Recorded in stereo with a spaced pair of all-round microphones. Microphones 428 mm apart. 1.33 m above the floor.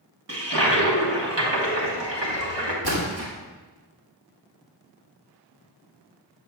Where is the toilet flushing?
75° right (ahead or behind), 1.4 m.